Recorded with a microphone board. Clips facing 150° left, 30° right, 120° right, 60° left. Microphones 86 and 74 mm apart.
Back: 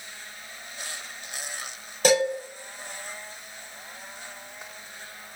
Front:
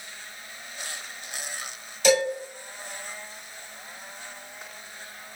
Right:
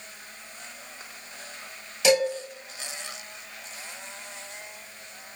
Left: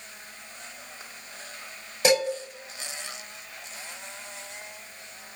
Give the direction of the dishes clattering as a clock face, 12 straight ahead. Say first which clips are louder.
Even, right 1 dB; 8 o'clock.